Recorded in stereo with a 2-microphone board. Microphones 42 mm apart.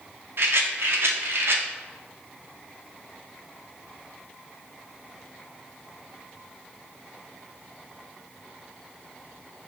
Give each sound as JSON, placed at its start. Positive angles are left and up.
{"t": 0.4, "sound": "a rattle", "side_deg": -75, "distance_m": 0.5}